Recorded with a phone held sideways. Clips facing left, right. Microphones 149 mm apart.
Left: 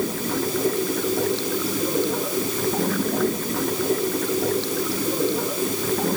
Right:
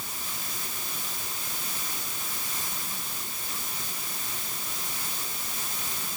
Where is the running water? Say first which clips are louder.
Left 19 dB; 90° left.